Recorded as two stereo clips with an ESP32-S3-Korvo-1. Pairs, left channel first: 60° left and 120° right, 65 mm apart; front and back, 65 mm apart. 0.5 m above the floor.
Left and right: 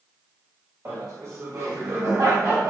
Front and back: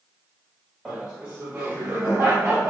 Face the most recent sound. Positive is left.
turn(degrees=-140)